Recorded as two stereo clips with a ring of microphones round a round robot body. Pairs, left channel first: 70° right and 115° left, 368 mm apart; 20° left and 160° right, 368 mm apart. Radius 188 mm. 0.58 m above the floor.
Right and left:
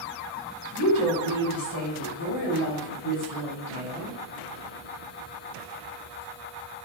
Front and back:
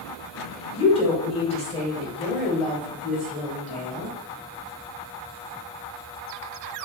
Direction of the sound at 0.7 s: 50° right.